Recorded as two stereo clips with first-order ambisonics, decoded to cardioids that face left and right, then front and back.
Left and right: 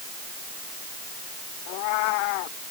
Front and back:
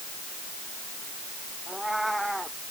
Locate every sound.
1.7 s a cat meowing: 90° left